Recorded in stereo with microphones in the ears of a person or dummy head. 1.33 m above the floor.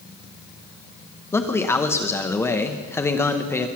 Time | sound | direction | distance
1.3 | a man speaking | 5° left (ahead or behind) | 0.9 m